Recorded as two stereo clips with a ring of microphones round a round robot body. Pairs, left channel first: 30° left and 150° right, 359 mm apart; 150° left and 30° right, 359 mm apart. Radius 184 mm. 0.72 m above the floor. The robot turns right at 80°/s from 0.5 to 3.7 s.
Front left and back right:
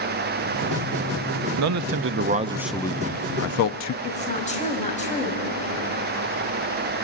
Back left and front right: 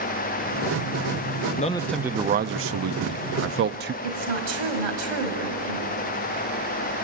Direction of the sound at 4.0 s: 40° right.